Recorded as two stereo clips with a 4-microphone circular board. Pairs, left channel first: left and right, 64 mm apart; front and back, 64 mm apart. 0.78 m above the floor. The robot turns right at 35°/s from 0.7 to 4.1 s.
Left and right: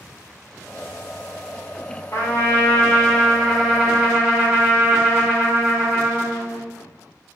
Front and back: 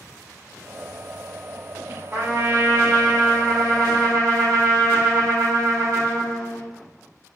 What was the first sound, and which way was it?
A trumpet, 130° left.